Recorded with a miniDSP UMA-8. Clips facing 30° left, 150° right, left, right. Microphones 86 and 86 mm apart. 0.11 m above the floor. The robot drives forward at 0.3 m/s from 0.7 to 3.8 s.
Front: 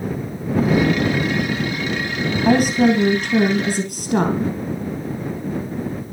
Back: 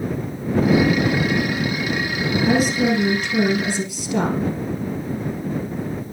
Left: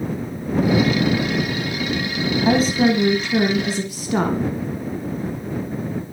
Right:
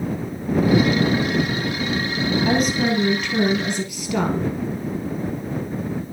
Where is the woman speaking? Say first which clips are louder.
Front 4 dB, left 5 dB; 35° left, 2.5 m; by 4.5 s 45° left, 2 m.